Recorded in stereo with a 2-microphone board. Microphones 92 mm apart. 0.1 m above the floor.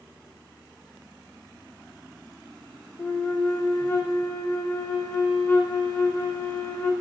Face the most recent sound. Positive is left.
turn(degrees=25)  # may be behind; listen again after turning